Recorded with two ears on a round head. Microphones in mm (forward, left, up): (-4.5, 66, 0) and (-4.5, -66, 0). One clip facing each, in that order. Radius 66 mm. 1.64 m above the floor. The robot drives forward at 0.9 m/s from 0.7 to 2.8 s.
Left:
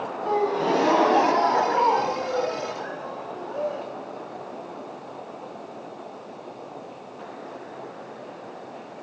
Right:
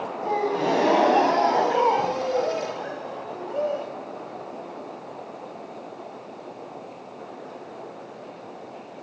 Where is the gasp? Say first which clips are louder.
Left 1 dB; 20° right (ahead or behind), 2 m; by 3.9 s 25° right (ahead or behind), 1.6 m.